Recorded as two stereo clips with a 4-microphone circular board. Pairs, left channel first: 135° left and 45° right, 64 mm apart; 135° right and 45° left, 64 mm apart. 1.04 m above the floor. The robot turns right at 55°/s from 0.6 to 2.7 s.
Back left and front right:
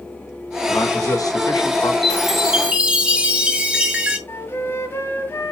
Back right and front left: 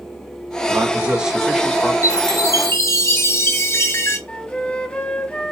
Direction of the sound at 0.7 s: 90° left.